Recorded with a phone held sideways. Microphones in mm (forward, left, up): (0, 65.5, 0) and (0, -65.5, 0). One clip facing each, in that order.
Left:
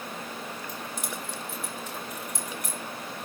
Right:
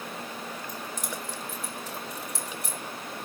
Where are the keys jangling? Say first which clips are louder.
Even; 45° right (ahead or behind), 4.5 m; by 2.8 s 25° right (ahead or behind), 6.5 m.